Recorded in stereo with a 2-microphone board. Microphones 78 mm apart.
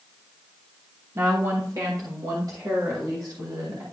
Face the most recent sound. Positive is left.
turn(degrees=-55)  # may be behind; listen again after turning